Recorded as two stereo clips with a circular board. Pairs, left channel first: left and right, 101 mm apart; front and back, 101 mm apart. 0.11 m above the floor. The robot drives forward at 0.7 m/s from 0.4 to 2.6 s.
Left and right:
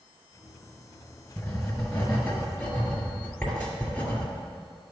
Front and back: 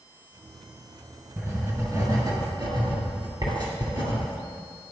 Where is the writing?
140° left, 1.7 m; by 4.2 s 160° left, 2 m.